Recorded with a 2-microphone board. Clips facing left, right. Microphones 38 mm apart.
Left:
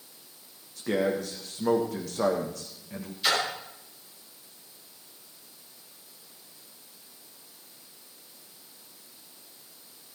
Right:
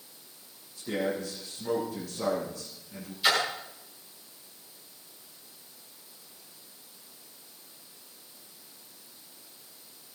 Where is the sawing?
No sawing in this recording.